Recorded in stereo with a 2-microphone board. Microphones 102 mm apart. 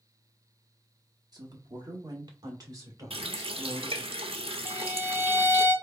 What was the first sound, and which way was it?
A woman speaking, 35° right (ahead or behind).